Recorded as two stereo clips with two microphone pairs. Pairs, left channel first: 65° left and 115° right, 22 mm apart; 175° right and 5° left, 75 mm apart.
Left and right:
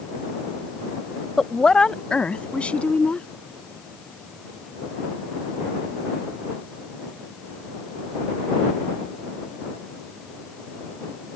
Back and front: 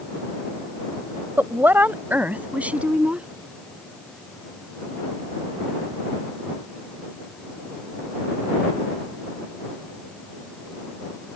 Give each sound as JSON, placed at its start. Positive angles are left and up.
{"t": 1.4, "sound": "a woman speaking", "azimuth_deg": 15}